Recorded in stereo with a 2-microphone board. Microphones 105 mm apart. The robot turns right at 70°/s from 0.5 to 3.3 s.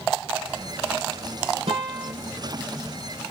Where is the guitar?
85° right, 1.1 m; by 2.1 s 55° right, 1.1 m.